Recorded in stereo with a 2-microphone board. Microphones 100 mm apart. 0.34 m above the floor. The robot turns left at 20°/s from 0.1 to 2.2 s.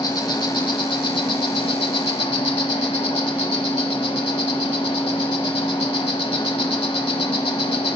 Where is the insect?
135° left, 1.0 m; by 8.0 s 90° left, 1.0 m.